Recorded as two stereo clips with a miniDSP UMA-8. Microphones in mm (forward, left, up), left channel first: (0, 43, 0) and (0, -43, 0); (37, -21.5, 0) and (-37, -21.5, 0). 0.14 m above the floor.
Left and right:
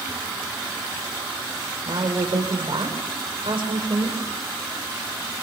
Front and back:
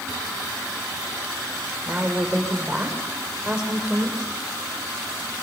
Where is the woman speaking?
100° right, 7 m.